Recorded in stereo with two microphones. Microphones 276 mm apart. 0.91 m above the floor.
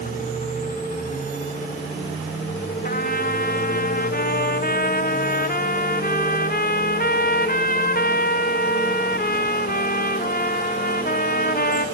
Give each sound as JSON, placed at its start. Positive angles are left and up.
{"t": 2.8, "sound": "a trumpet", "side_deg": 35, "distance_m": 1.2}